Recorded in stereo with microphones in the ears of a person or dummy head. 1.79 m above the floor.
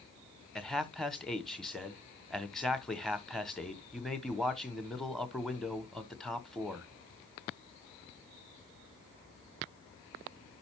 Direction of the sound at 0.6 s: Centre (ahead or behind).